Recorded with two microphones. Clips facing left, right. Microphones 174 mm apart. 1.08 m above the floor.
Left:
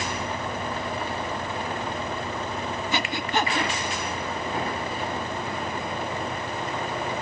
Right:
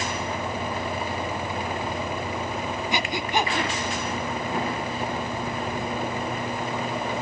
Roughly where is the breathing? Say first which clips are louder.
Right 1 dB; centre.